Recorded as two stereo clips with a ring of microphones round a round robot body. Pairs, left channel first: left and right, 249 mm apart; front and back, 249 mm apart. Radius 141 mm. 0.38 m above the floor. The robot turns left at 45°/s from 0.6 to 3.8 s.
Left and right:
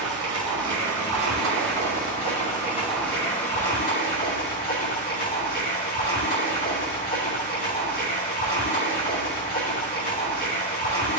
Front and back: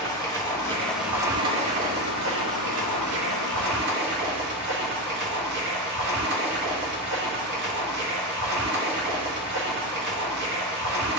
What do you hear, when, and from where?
0.0 s running water: 75° right, 1.8 m; by 11.2 s 140° left, 1.8 m